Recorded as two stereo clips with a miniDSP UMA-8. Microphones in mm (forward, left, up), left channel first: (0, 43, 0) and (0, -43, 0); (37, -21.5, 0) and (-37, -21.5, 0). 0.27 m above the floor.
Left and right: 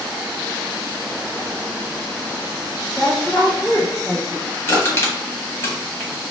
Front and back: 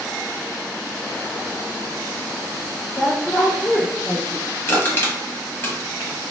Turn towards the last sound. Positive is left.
turn(degrees=45)